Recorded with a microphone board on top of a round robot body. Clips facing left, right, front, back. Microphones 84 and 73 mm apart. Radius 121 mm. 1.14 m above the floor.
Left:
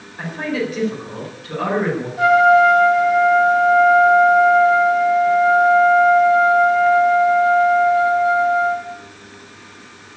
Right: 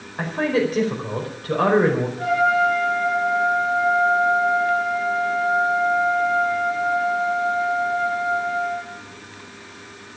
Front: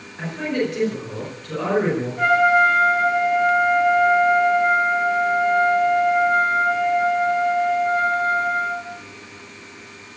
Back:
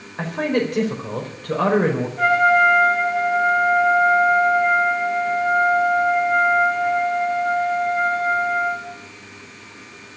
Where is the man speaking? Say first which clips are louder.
Right 2 dB, back 3 dB; 140° right, 4.5 m.